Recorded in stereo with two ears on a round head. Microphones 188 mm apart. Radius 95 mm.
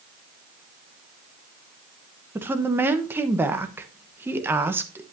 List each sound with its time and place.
2.4 s a woman speaking: 10° right (ahead or behind), 1.0 m